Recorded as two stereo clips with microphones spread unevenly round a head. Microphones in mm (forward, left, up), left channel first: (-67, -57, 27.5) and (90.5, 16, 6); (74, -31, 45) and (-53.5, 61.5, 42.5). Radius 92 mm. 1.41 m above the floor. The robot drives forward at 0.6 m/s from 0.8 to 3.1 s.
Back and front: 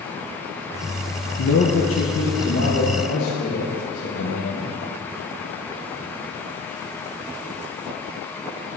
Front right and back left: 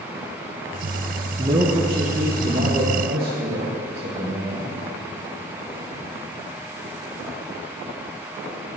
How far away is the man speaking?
About 0.9 m.